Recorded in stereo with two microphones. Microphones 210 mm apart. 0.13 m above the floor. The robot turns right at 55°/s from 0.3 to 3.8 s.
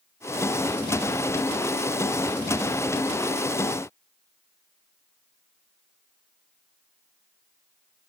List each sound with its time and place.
Only background noise.